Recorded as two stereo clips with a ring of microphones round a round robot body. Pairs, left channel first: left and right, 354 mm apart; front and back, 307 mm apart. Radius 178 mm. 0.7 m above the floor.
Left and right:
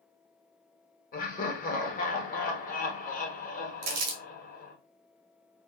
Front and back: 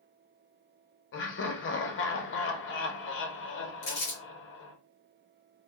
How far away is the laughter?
About 0.7 m.